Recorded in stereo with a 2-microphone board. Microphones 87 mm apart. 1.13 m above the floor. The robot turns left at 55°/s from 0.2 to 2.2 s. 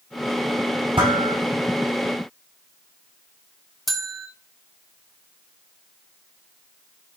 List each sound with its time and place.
1.0 s dishes clattering: 80° right, 4 m; by 1.4 s 55° right (ahead or behind), 4 m
3.9 s a bell: centre (ahead or behind), 1.0 m